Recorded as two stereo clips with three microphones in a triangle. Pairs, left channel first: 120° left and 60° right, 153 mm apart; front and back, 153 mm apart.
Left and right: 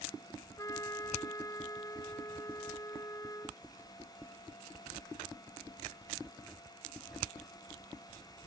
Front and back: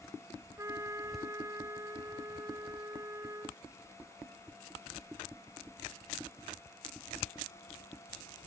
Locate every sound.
0.6 s a trumpet: 145° left